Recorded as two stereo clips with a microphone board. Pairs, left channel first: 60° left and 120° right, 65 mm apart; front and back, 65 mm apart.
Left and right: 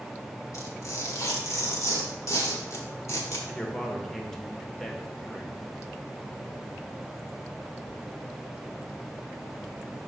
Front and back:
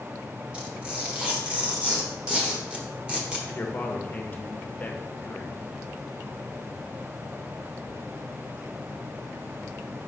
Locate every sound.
0.5 s tearing paper: 105° left, 1.3 m
3.5 s a man speaking: 20° right, 0.8 m